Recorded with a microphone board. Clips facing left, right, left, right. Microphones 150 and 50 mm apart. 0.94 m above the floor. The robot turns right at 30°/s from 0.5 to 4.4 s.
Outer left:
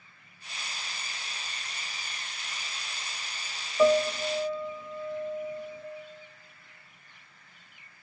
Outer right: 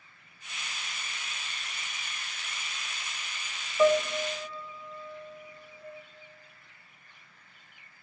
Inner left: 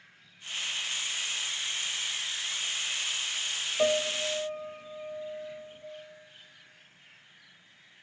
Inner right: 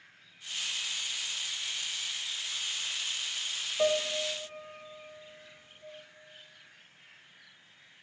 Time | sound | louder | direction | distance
3.8 | a piano | outer left 1 dB, inner left 1 dB | 10° left (ahead or behind) | 1.3 m